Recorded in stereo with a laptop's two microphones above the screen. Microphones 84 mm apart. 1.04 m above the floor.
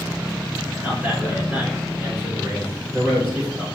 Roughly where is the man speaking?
Centre.